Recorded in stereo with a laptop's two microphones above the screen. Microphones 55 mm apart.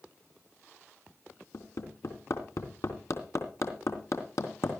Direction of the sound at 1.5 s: 70° left (ahead or behind).